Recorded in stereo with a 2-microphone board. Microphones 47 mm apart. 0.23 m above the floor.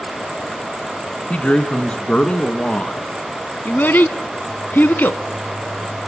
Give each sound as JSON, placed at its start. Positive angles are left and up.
{"t": 1.3, "sound": "a man speaking", "side_deg": 25, "distance_m": 2.0}
{"t": 3.6, "sound": "a child speaking", "side_deg": 45, "distance_m": 1.1}